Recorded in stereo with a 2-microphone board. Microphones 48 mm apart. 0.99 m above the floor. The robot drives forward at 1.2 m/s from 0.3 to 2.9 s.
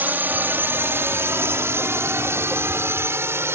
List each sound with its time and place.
0.0 s a drone: 45° right (ahead or behind); by 3.6 s 65° right (ahead or behind)